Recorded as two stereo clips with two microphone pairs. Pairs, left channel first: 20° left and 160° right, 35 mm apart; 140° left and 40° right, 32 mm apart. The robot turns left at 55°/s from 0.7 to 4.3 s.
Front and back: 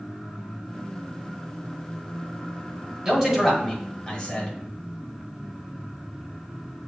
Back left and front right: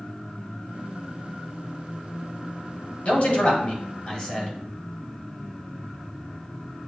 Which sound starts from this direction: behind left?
A man speaking, at 3.0 s.